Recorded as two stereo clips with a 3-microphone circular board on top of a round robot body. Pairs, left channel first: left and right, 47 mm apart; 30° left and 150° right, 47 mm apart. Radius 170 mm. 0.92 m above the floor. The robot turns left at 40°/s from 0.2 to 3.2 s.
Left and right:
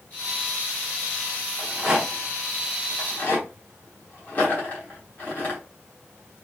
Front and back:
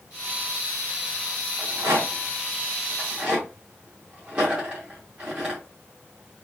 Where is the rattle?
155° right, 1.0 m; by 5.6 s 140° left, 1.0 m.